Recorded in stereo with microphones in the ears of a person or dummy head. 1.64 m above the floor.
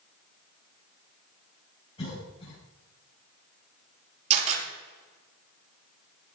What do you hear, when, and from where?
2.0 s a cough: 30° left (ahead or behind), 6 m
4.3 s a camera shutter: 40° right (ahead or behind), 5 m